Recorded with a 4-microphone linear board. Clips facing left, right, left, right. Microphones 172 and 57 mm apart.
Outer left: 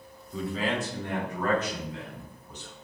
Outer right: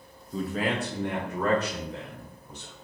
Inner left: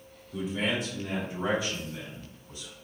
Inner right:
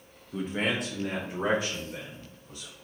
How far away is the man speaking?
About 0.9 m.